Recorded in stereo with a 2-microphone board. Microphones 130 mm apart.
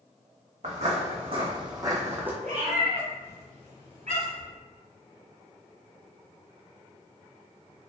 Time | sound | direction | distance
0.6 | footsteps | 65° right (ahead or behind) | 1.1 m
2.4 | a cat meowing | 90° right | 1.3 m